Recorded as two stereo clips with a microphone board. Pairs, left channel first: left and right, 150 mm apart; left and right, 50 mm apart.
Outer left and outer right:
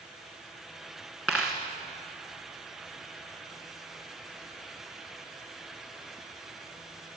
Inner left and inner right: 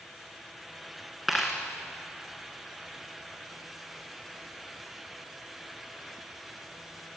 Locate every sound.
1.3 s a dropped coin: centre (ahead or behind), 2 m